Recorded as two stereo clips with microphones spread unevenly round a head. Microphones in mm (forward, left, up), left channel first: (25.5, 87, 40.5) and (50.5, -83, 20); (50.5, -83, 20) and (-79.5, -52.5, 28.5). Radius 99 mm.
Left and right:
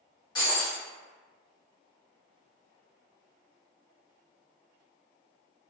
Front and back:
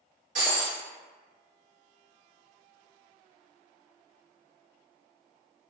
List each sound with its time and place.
0.3 s breaking glass: 155° left, 1.3 m